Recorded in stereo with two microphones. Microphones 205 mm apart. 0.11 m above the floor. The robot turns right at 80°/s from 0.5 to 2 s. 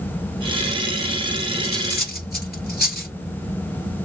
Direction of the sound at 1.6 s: 50° left (ahead or behind).